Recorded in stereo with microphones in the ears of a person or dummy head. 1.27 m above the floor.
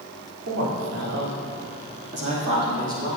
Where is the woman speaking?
75° right (ahead or behind), 3 m; by 3.2 s 15° right (ahead or behind), 2.5 m.